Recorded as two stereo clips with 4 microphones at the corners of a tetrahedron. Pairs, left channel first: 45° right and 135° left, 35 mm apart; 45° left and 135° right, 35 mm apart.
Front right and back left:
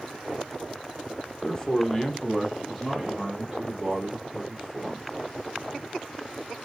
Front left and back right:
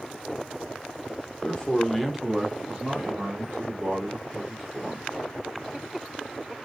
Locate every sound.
1.4 s a man speaking: 5° left, 0.8 m; by 5.0 s 155° right, 2 m